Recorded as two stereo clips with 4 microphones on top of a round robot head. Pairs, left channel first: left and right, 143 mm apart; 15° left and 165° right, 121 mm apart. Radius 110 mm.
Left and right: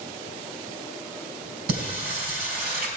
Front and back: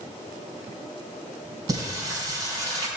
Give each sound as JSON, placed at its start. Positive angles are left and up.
{"t": 1.7, "sound": "singing", "azimuth_deg": -105, "distance_m": 3.5}